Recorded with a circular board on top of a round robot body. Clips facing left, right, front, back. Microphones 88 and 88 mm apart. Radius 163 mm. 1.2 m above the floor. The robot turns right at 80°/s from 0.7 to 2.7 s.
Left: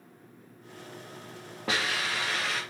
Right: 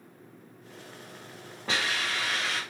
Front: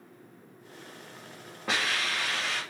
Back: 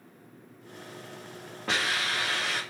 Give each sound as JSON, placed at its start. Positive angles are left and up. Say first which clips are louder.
{"t": 1.7, "sound": "a hiss", "louder": "even, back 1 dB", "azimuth_deg": 85, "distance_m": 0.7}